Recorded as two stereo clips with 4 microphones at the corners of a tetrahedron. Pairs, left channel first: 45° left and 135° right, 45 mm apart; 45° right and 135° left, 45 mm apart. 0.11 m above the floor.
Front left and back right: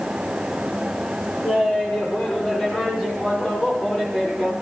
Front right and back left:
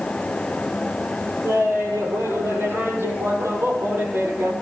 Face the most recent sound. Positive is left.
turn(degrees=110)